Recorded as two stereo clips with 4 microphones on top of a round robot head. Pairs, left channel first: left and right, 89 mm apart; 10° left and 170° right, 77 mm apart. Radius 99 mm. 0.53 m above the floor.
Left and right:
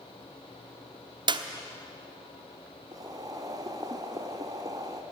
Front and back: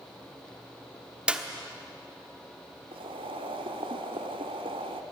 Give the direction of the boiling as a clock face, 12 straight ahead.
5 o'clock.